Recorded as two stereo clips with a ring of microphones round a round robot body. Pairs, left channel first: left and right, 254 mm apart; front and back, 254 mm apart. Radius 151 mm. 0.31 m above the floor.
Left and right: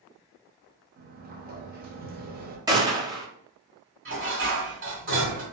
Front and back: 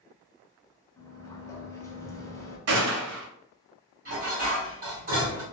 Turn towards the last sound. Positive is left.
turn(degrees=-125)